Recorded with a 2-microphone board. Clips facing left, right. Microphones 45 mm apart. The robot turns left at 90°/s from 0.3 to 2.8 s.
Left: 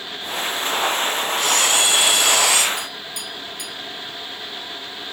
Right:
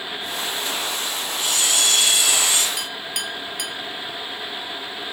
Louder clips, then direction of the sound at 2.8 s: Right 2 dB; 75° right (ahead or behind).